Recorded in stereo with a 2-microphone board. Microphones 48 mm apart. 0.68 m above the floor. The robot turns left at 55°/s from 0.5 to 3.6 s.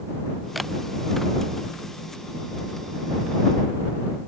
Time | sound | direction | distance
0.6 | a camera shutter | centre (ahead or behind) | ?